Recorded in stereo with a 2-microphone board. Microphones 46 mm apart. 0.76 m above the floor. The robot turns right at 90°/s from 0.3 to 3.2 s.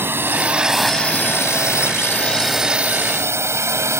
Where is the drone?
50° right (ahead or behind); by 4.0 s 75° right (ahead or behind).